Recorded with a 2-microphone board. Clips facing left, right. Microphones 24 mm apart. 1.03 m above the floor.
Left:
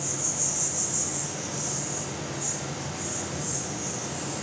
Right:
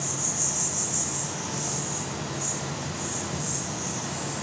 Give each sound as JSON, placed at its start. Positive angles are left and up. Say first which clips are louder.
{"t": 0.0, "sound": "an insect", "louder": "right 1 dB", "side_deg": -70, "distance_m": 2.5}